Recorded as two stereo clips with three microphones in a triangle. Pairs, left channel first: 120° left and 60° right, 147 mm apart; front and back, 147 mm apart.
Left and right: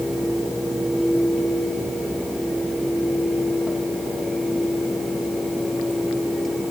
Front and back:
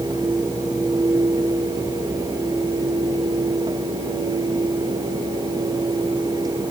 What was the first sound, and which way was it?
Only background noise.